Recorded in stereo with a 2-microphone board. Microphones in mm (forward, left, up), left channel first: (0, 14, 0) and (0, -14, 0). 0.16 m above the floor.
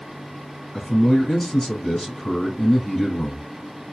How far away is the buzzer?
No buzzer in this recording.